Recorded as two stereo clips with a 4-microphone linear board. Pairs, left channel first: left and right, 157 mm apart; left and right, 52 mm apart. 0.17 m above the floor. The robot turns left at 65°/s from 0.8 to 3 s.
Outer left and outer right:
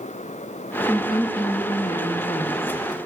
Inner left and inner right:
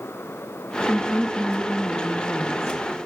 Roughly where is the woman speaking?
Behind.